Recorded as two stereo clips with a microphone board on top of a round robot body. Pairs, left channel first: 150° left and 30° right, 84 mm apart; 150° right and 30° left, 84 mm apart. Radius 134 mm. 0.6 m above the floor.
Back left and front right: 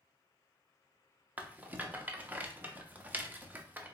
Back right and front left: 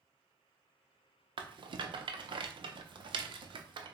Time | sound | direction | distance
1.4 | a rattle | 40° left | 0.6 m